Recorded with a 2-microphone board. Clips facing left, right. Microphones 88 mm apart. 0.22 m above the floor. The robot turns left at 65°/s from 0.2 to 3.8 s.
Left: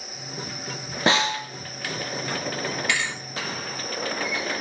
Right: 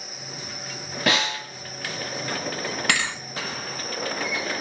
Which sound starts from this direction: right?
A thud, at 2.9 s.